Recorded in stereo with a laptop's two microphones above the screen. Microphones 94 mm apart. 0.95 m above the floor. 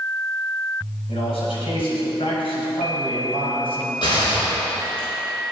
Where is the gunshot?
55° left (ahead or behind), 5 m.